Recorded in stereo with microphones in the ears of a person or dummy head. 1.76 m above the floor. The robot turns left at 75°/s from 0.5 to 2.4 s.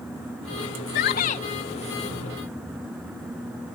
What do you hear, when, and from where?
0.9 s a shout: 75° left; by 1.4 s 35° left